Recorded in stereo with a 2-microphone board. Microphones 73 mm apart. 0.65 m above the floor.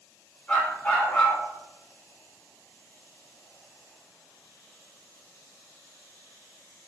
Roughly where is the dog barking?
Left.